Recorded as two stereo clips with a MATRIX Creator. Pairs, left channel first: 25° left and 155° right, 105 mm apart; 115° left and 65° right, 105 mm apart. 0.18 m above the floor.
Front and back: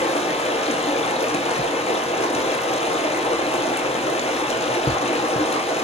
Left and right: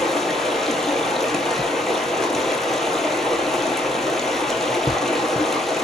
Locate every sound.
0.0 s running water: 25° left, 0.9 m